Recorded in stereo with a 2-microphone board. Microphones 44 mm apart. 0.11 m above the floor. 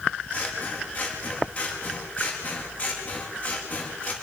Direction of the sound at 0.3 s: 30° left (ahead or behind).